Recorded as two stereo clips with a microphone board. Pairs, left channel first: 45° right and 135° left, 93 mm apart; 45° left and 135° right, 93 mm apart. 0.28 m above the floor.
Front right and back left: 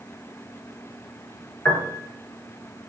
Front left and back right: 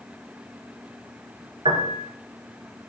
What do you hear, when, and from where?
1.6 s a piano: 115° right, 1.0 m